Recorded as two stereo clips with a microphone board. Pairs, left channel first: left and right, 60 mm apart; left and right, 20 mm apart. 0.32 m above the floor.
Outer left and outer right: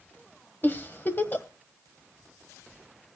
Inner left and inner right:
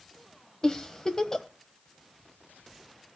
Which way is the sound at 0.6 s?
30° left (ahead or behind).